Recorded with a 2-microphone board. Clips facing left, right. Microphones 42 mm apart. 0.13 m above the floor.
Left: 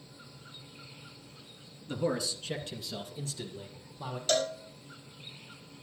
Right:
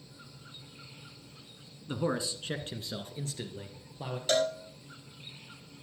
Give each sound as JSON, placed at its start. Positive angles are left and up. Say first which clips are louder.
{"t": 1.9, "sound": "a man speaking", "louder": "even", "side_deg": -20, "distance_m": 1.5}
{"t": 4.3, "sound": "a cowbell", "louder": "right 2 dB", "side_deg": -10, "distance_m": 1.1}